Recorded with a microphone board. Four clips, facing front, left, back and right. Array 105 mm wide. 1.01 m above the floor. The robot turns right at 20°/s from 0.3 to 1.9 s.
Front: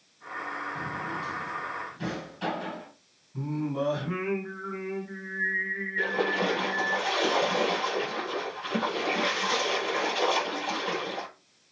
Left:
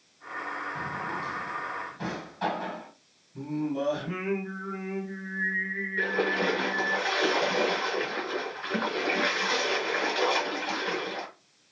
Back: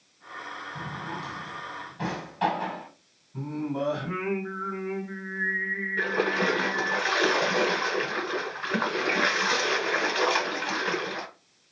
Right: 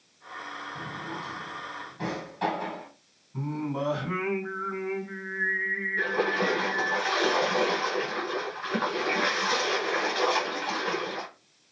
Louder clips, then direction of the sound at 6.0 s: Even, back 1 dB; 175° right.